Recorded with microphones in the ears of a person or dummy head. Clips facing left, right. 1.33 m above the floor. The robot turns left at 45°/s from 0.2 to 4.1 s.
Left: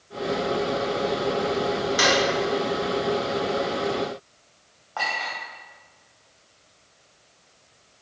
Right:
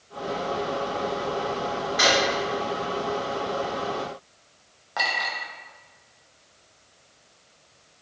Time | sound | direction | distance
2.0 | a drawer | 55° left (ahead or behind) | 1.0 m
5.0 | a clink | 20° right (ahead or behind) | 0.7 m